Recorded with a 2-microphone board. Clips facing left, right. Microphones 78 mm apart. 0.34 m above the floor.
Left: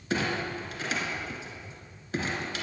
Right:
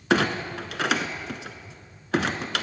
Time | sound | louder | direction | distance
0.1 | a clunk | right 6 dB | 75° right (ahead or behind) | 1.3 m